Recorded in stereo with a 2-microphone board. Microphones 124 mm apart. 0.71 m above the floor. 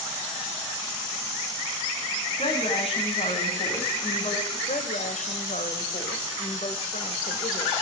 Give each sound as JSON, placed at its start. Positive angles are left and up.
{"t": 2.4, "sound": "a woman speaking", "side_deg": 50, "distance_m": 6.5}
{"t": 4.7, "sound": "a woman speaking", "side_deg": 75, "distance_m": 3.0}